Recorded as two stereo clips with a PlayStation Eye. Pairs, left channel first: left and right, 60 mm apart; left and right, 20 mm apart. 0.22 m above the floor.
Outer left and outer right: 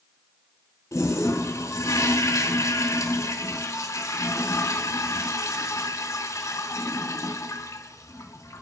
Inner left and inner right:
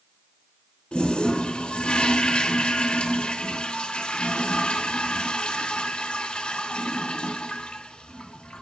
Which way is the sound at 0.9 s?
60° left (ahead or behind).